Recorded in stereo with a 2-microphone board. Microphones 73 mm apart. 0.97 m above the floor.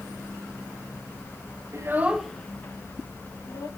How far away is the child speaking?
About 0.6 m.